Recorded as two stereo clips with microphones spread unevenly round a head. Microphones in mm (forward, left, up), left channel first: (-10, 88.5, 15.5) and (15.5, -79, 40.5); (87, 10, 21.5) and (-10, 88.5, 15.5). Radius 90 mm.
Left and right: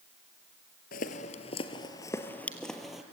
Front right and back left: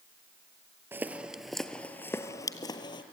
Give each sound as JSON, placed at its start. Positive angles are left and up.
{"t": 0.9, "sound": "footsteps", "azimuth_deg": 75, "distance_m": 1.2}